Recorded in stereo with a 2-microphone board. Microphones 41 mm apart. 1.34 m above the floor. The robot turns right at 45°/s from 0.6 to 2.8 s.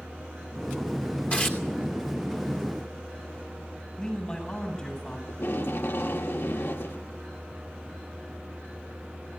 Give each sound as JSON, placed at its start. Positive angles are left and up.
{"t": 1.3, "sound": "tearing paper", "side_deg": 40, "distance_m": 2.5}
{"t": 4.0, "sound": "a man speaking", "side_deg": 15, "distance_m": 9.0}
{"t": 5.3, "sound": "tape being pulled", "side_deg": 75, "distance_m": 1.5}